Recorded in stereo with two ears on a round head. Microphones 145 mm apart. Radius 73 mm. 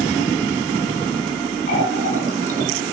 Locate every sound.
1.7 s a running tap: 45° left (ahead or behind), 4 m